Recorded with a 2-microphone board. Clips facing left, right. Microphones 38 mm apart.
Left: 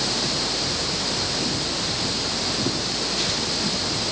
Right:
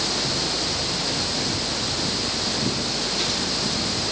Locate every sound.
Only background noise.